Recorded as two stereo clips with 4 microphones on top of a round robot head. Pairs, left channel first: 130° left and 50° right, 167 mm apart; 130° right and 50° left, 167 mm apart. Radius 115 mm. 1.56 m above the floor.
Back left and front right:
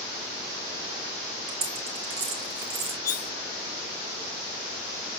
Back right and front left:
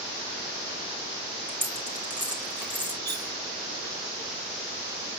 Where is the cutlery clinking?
110° left, 0.7 m.